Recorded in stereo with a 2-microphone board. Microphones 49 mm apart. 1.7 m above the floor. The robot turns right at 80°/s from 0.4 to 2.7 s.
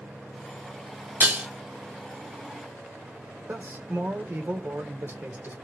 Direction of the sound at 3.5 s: 55° right (ahead or behind).